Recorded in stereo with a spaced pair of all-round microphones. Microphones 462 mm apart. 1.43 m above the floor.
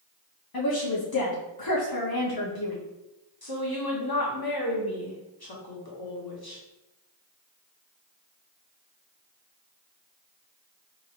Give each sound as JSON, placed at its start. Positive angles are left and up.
{"t": 0.5, "sound": "a woman speaking", "side_deg": 50, "distance_m": 0.7}
{"t": 3.4, "sound": "a woman speaking", "side_deg": 50, "distance_m": 1.1}